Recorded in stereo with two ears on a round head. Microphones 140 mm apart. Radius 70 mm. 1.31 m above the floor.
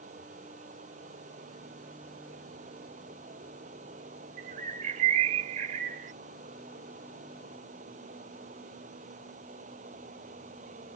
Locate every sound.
0.0 s running water: 50° right (ahead or behind)
4.4 s a bird: 50° right (ahead or behind)